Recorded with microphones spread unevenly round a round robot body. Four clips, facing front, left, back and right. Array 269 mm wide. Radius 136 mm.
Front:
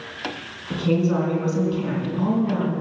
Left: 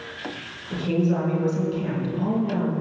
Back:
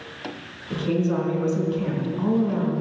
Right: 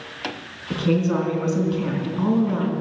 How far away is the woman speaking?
About 4 m.